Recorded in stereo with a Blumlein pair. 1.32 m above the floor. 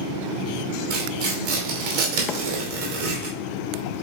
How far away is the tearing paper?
About 2.5 m.